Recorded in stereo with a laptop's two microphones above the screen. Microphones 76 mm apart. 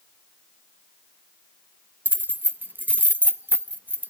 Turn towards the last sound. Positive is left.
turn(degrees=-25)  # may be behind; listen again after turning